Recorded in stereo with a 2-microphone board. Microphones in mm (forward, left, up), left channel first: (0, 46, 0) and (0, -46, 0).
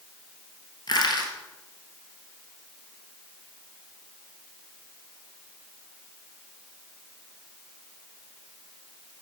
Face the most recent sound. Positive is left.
turn(degrees=55)  # may be behind; listen again after turning